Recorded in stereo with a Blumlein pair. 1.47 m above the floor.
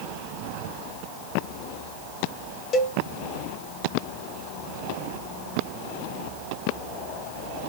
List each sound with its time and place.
2.7 s a cowbell: 30° left, 1.4 m